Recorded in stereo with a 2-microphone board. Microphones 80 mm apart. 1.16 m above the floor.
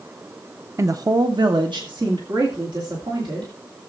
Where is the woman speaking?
40° right (ahead or behind), 0.7 m; by 3.5 s 80° right, 3.5 m.